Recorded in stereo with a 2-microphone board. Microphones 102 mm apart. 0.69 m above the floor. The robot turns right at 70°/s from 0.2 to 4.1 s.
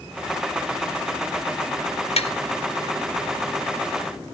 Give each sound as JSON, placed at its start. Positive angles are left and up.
{"t": 2.2, "sound": "tapping", "side_deg": 80, "distance_m": 2.0}